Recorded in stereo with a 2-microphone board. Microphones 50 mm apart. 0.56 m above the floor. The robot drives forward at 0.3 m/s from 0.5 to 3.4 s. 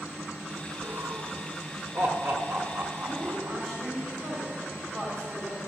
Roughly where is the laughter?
Right.